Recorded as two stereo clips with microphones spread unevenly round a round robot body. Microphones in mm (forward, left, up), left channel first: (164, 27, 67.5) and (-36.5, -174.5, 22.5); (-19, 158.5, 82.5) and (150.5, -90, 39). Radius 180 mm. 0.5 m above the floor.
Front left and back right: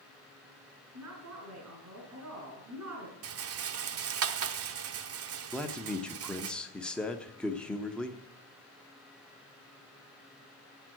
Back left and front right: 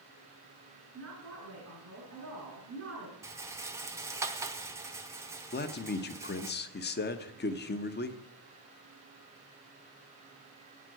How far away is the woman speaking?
About 6 m.